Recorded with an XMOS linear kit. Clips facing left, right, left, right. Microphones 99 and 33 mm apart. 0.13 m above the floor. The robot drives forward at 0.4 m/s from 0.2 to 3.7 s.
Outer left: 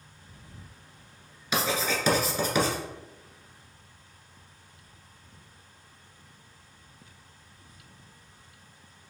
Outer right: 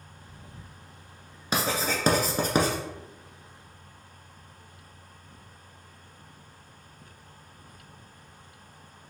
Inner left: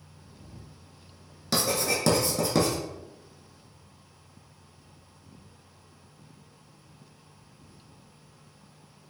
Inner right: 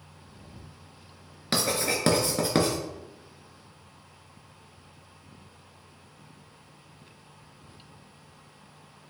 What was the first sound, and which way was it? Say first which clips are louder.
Writing: even, even; 40° right (ahead or behind).